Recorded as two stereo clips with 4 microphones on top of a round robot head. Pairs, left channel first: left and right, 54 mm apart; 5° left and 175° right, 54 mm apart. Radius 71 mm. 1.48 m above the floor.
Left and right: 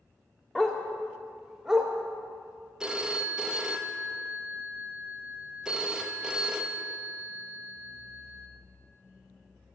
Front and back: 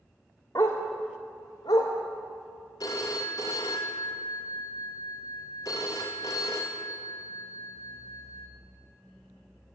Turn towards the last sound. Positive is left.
turn(degrees=-15)